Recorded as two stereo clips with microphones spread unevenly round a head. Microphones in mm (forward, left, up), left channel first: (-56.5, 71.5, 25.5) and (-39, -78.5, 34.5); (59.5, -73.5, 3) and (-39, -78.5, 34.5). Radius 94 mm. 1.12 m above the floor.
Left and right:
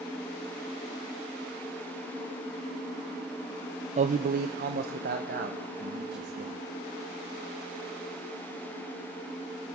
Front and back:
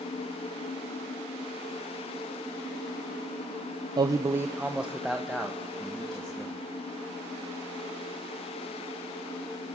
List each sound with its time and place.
4.0 s a man speaking: 120° right, 0.5 m; by 6.5 s 75° right, 1.8 m